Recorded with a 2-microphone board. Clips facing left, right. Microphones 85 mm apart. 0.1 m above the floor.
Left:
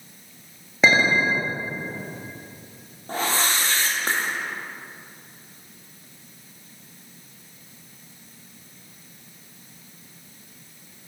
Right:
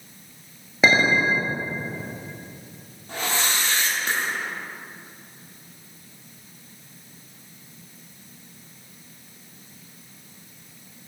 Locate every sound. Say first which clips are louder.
0.8 s a clink: even; 5° right (ahead or behind), 1.5 m
3.1 s a whoosh: left 2 dB; 40° left (ahead or behind), 1.3 m